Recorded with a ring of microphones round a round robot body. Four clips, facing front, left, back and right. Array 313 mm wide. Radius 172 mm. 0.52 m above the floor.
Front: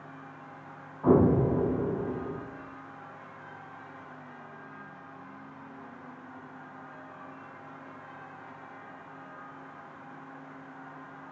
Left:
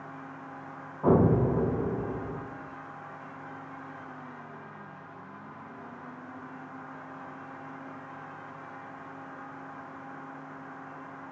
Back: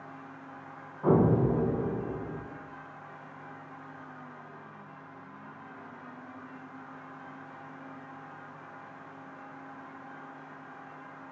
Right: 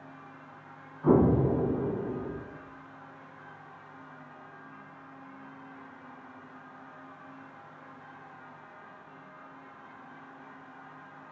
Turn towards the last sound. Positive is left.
turn(degrees=95)